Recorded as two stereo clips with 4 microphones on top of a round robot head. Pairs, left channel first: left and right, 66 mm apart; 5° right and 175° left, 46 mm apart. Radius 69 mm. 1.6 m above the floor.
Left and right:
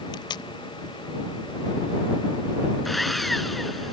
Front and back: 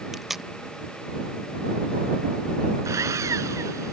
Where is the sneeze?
I don't hear a sneeze.